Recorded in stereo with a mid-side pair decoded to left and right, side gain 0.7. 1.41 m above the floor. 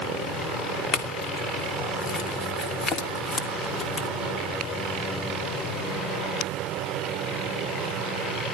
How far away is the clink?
About 2.5 m.